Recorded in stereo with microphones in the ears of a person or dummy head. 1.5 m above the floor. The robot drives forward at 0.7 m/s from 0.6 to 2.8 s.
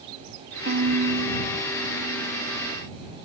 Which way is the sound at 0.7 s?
55° right (ahead or behind).